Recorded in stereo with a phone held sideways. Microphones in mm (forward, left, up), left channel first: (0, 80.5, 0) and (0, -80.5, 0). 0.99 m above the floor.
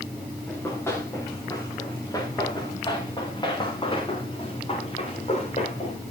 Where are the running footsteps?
10° left (ahead or behind), 8 m; by 6.0 s 45° left (ahead or behind), 7 m.